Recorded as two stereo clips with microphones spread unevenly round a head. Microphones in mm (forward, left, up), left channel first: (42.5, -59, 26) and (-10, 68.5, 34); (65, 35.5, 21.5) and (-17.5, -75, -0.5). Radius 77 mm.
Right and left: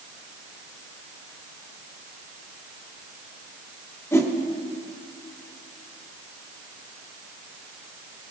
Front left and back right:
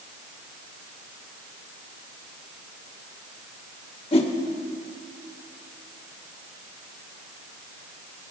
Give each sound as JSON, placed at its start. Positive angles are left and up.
{"t": 4.1, "sound": "a whoosh", "azimuth_deg": 5, "distance_m": 1.3}